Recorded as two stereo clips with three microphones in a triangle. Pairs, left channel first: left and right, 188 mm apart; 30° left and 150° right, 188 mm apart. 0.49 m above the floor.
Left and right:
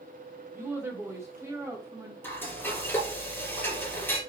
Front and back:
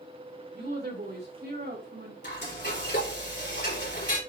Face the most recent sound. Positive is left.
turn(degrees=10)